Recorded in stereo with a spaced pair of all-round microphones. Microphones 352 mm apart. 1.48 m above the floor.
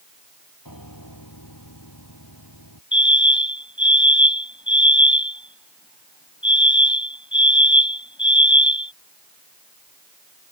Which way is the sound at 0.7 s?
70° left (ahead or behind).